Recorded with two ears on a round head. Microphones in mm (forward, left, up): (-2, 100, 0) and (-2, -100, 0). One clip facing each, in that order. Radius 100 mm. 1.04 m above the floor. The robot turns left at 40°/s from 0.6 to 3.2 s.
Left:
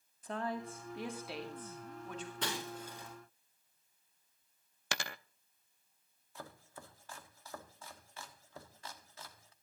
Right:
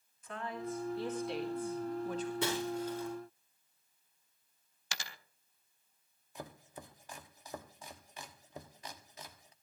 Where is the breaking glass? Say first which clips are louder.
Right 7 dB; 10° right (ahead or behind), 5 m; by 3.1 s 20° left (ahead or behind), 5 m.